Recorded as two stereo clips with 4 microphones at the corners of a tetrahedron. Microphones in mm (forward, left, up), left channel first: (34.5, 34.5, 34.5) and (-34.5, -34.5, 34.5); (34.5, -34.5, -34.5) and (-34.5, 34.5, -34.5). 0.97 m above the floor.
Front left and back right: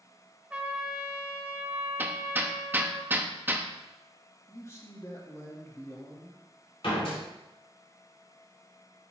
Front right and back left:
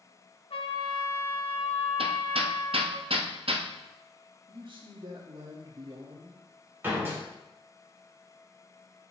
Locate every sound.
0.5 s a trumpet: 60° right, 0.9 m
2.0 s hammering: 155° left, 0.7 m
4.5 s a man speaking: 105° left, 1.6 m
6.8 s a door slam: 65° left, 3 m